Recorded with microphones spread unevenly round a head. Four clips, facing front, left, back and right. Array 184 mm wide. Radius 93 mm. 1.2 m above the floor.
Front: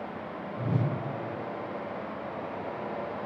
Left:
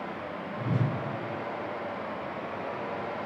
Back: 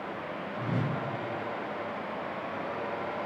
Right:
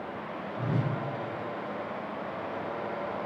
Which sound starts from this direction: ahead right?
A whoosh, at 0.6 s.